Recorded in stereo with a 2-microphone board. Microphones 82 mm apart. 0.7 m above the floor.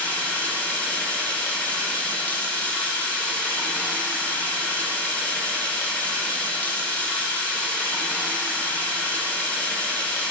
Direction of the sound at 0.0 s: 20° left (ahead or behind).